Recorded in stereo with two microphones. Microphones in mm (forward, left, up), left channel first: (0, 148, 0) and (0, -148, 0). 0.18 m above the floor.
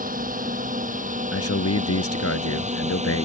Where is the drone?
30° right (ahead or behind); by 3.2 s 20° right (ahead or behind).